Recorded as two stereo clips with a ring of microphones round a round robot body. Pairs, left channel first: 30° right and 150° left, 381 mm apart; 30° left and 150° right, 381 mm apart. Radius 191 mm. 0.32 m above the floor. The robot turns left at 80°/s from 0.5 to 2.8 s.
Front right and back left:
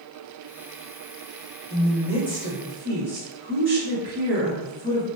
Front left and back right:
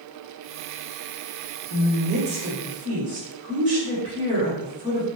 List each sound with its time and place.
1.7 s a woman speaking: 100° right, 1.2 m; by 5.1 s 170° left, 1.2 m